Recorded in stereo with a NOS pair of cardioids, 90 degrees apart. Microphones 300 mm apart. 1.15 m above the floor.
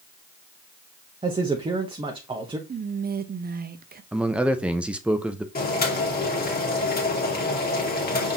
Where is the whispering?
30° right, 0.8 m.